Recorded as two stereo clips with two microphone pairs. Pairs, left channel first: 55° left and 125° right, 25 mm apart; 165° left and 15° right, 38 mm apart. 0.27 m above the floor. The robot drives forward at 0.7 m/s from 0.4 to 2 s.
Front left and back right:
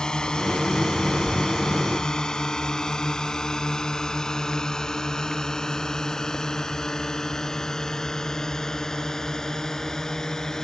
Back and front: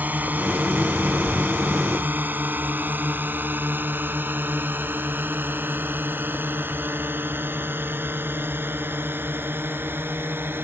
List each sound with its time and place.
0.0 s a drone: 5° left; by 10.7 s 10° right